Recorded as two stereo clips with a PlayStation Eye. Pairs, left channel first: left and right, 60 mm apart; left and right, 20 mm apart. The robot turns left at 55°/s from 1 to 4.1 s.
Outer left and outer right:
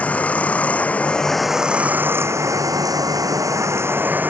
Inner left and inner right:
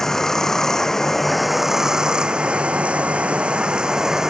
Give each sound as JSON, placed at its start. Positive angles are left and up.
{"t": 0.0, "sound": "running water", "azimuth_deg": 25}